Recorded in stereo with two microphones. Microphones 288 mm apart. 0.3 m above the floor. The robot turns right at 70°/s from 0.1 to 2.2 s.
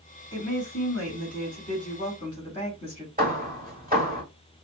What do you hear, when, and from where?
0.3 s a woman speaking: 20° left, 3 m; by 3.1 s 150° left, 3 m
3.2 s hammering: 30° right (ahead or behind), 1.7 m